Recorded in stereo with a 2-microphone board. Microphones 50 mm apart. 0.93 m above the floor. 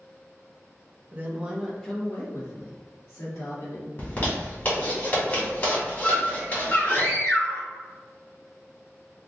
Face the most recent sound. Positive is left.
turn(degrees=35)  # may be behind; listen again after turning